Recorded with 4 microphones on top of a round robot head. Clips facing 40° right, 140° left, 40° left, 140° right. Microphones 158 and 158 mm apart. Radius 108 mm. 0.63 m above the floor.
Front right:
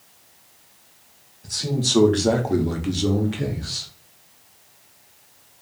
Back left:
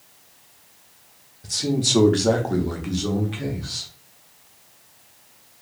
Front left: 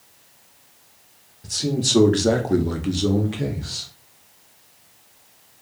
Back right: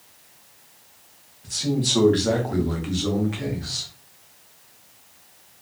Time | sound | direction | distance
1.4 | a man speaking | 80° left | 0.9 m